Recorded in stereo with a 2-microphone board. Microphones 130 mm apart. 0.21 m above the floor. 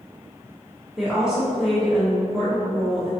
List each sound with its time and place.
1.0 s a woman speaking: 5° right (ahead or behind), 1.9 m